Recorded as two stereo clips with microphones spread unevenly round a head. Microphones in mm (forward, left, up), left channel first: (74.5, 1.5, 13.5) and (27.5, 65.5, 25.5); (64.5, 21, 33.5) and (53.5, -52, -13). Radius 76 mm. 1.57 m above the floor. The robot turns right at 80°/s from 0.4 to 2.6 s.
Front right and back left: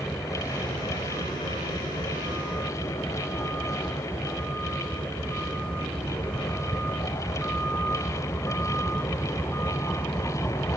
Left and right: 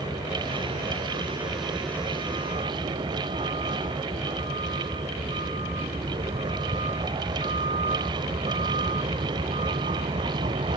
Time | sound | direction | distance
0.0 | a vehicle | 45° left | ?